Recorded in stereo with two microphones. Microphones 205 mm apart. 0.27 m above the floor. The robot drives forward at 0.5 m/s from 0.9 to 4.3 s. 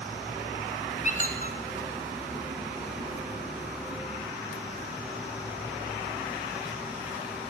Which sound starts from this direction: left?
A squeak, at 1.0 s.